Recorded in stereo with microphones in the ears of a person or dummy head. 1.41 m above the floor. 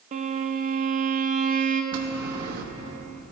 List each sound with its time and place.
0.1 s a violin: 40° right (ahead or behind), 0.8 m
1.9 s a bell: 50° right (ahead or behind), 1.0 m